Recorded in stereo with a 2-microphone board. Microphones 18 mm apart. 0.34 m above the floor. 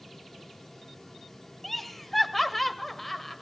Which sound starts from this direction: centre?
Laughter, at 1.6 s.